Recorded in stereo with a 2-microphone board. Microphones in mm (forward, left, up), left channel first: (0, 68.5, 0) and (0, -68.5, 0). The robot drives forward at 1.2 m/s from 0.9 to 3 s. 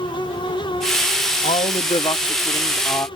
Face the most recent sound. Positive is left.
turn(degrees=25)  # may be behind; listen again after turning